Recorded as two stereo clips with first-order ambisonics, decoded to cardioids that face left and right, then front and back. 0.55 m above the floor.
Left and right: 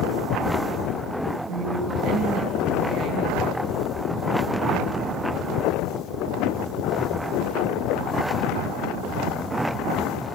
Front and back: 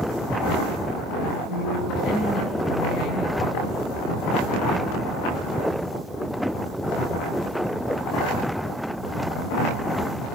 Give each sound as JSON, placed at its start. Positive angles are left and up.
{"t": 1.5, "sound": "a woman speaking", "azimuth_deg": -45, "distance_m": 5.5}